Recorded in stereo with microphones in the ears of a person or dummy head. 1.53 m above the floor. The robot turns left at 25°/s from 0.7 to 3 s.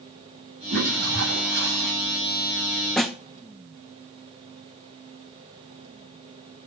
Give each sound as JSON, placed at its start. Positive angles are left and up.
{"t": 0.7, "sound": "a toilet flushing", "azimuth_deg": -70, "distance_m": 8.5}
{"t": 3.0, "sound": "a snare drum", "side_deg": 0, "distance_m": 0.6}